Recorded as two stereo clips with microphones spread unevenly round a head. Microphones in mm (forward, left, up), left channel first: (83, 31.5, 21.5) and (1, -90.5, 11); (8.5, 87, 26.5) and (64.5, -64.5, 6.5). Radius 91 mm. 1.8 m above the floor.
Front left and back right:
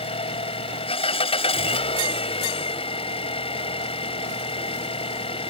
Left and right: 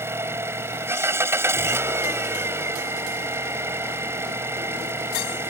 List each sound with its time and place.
0.0 s an engine running: 5° left